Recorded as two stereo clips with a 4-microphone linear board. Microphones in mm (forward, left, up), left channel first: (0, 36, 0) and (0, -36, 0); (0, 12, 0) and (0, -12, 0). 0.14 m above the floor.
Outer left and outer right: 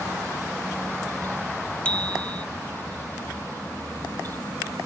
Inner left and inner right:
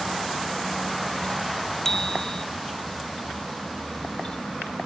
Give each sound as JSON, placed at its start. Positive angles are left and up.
{"t": 1.9, "sound": "a bicycle bell", "side_deg": 15}